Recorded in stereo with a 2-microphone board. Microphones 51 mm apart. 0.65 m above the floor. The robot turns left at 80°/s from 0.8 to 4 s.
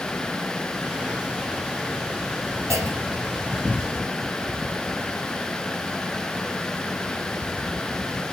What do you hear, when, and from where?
2.7 s a clunk: 95° right, 3.5 m; by 3.3 s 140° right, 3.5 m